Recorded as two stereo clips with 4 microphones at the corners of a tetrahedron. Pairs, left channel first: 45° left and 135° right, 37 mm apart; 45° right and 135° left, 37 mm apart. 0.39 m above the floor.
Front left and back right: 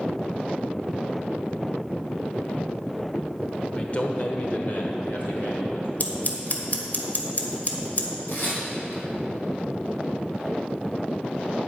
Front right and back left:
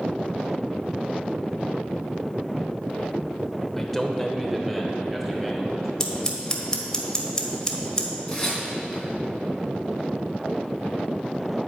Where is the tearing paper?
30° left, 3.5 m.